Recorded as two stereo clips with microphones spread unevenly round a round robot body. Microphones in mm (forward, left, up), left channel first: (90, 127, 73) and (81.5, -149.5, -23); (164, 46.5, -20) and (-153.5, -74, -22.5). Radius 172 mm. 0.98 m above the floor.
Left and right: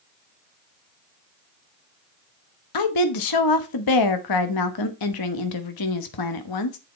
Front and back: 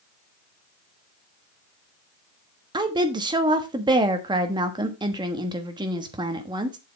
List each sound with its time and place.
2.7 s a woman speaking: 125° left, 1.1 m